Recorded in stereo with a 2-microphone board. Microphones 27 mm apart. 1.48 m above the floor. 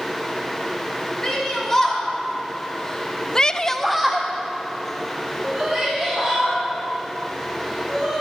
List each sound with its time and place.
1.2 s a shout: 15° left (ahead or behind), 3.5 m; by 8.2 s 15° right (ahead or behind), 7 m